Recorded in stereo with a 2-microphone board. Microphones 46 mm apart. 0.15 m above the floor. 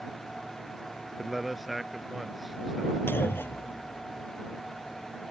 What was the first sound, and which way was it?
A man speaking, 5° right (ahead or behind).